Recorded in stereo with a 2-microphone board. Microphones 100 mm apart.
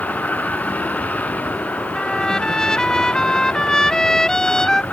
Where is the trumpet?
5° left (ahead or behind).